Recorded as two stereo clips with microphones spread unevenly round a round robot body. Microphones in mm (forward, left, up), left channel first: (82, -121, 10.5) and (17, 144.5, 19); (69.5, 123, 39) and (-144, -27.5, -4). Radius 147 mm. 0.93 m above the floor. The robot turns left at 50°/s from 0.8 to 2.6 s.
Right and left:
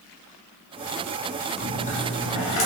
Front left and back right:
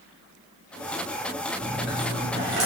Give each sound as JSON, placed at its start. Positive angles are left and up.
{"t": 1.6, "sound": "a dropped coin", "azimuth_deg": 0, "distance_m": 1.8}